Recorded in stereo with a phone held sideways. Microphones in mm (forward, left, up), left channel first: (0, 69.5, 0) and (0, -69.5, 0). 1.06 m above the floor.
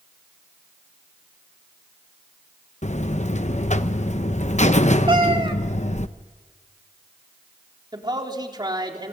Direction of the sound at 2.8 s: 55° left (ahead or behind).